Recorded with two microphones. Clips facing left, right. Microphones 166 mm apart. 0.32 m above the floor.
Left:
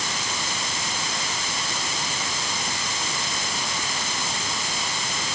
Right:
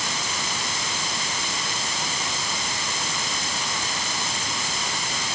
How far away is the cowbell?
No cowbell in this recording.